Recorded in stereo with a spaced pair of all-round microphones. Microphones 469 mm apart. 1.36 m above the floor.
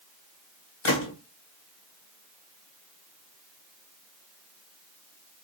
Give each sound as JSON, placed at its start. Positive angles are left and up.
{"t": 0.8, "sound": "a gunshot", "side_deg": 70, "distance_m": 1.2}